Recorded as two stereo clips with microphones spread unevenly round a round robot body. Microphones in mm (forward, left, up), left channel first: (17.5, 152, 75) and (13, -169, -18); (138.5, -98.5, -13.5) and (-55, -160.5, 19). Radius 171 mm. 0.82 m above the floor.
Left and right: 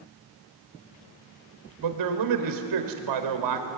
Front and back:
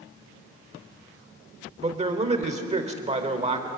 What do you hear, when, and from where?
1.8 s a man speaking: 105° right, 3.5 m